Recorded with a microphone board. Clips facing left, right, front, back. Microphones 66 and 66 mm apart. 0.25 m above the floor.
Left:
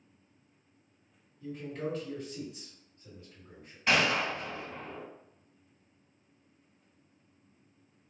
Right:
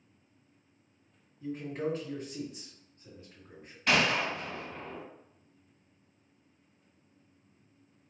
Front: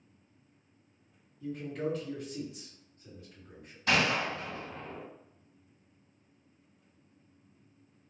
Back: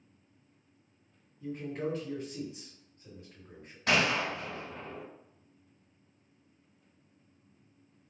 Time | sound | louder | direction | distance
1.4 | a man speaking | right 3 dB, even | 135° right | 2.0 m
3.9 | a gunshot | even, even | 175° left | 1.4 m